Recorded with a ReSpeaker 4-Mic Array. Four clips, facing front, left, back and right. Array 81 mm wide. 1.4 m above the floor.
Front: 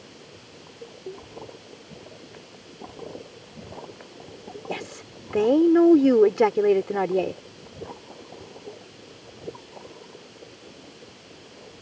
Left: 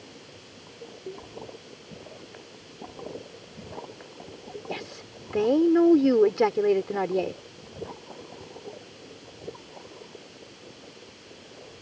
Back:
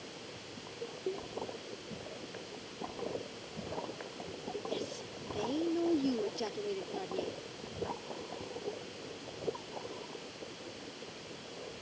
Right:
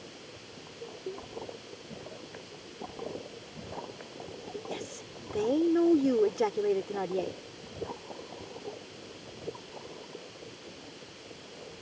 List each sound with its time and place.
4.7 s a woman speaking: 25° left